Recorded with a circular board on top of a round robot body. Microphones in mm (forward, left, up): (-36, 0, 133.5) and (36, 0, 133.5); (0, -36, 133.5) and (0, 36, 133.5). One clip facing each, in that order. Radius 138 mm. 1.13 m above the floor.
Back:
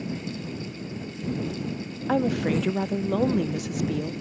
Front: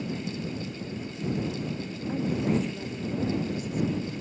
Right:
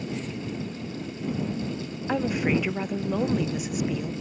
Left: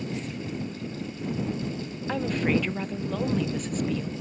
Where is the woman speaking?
170° right.